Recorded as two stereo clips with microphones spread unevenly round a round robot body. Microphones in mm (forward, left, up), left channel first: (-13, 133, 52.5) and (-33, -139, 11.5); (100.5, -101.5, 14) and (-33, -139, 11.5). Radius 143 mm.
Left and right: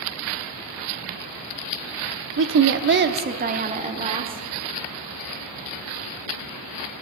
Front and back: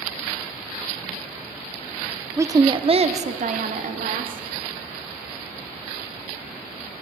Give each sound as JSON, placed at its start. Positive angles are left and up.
{"t": 2.4, "sound": "a woman speaking", "azimuth_deg": -95, "distance_m": 0.8}